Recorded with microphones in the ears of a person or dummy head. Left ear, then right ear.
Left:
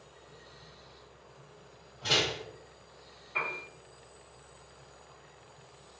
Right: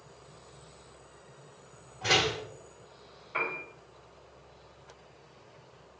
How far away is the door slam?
About 1.4 m.